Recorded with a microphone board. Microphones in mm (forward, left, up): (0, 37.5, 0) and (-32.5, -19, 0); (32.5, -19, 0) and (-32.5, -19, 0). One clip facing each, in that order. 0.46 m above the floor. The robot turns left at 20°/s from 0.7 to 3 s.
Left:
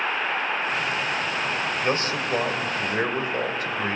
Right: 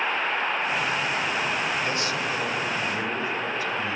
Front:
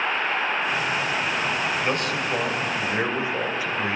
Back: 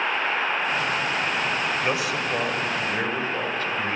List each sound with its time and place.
1.8 s a man speaking: 100° left, 2.5 m; by 4.0 s 80° left, 2.5 m